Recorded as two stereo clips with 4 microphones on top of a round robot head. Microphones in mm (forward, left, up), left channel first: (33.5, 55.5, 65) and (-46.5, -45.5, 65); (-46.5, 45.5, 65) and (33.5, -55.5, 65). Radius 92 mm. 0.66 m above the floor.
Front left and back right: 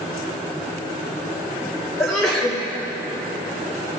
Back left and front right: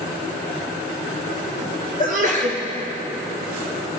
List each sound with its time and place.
2.0 s a sneeze: 40° right, 2 m